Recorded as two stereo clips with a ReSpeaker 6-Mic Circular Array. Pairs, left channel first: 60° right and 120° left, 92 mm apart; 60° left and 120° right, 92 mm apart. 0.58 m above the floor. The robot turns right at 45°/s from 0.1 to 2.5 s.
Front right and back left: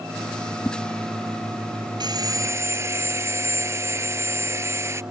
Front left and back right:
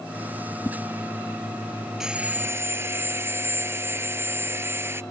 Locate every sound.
0.7 s a whoosh: straight ahead; by 0.8 s 5° left
2.0 s sawing: 155° left; by 5.0 s straight behind